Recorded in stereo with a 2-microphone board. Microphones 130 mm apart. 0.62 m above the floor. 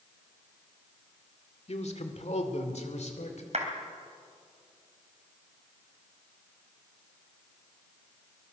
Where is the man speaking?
55° left (ahead or behind), 1.9 m; by 3.4 s 60° left (ahead or behind), 3 m.